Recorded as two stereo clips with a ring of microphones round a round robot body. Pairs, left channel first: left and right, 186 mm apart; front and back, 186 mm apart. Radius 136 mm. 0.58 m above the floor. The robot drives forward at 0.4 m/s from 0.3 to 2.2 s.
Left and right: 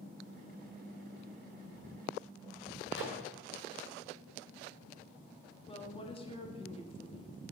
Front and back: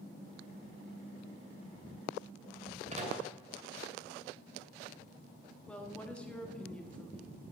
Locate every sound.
2.9 s a microwave: 125° left, 2.5 m
5.7 s a woman speaking: 80° left, 1.3 m